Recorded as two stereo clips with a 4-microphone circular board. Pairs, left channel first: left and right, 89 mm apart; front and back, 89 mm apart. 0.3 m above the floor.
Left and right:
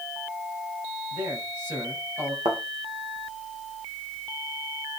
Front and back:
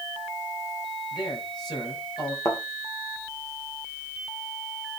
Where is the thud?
55° right, 2.5 m.